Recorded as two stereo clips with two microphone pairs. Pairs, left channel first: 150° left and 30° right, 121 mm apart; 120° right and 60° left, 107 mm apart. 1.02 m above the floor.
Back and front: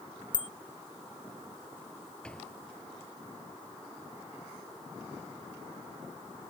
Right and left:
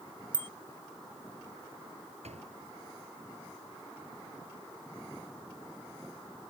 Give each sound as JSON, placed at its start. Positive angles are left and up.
{"t": 0.3, "sound": "a bicycle bell", "azimuth_deg": 15}
{"t": 2.2, "sound": "a door slam", "azimuth_deg": 65}